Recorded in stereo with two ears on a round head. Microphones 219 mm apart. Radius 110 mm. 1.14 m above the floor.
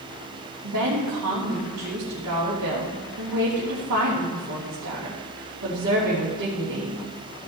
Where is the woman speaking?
65° right (ahead or behind), 3 m.